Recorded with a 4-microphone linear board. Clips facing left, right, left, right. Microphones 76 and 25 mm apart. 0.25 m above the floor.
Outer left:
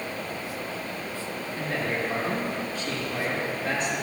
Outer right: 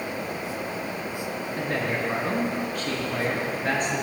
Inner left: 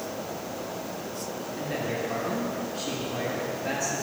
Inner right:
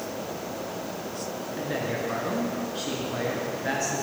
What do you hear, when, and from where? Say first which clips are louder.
1.6 s a man speaking: outer right 1 dB, inner right 1 dB; 50° right (ahead or behind), 4 m